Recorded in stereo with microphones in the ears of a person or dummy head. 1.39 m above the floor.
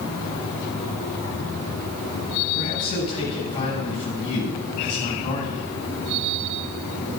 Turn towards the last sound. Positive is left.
turn(degrees=30)  # may be behind; listen again after turning